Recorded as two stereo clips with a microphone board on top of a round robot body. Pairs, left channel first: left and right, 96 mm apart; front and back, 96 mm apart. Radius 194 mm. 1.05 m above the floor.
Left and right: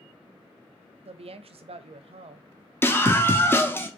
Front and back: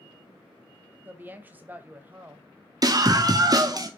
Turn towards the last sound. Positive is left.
turn(degrees=145)